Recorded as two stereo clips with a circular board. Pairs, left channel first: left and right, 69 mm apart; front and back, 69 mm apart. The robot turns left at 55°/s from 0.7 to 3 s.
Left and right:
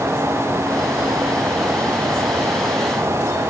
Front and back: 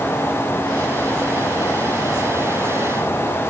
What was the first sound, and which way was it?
Only background noise.